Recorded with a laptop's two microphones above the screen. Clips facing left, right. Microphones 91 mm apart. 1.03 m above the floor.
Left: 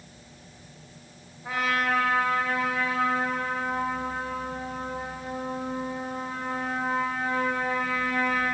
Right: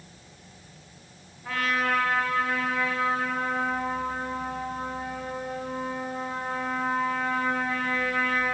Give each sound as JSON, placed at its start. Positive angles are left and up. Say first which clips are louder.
{"t": 1.4, "sound": "a trumpet", "louder": "even", "side_deg": 15, "distance_m": 3.0}